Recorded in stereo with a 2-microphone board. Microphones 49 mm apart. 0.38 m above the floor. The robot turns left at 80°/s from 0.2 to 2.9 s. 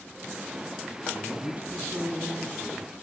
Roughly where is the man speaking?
Ahead.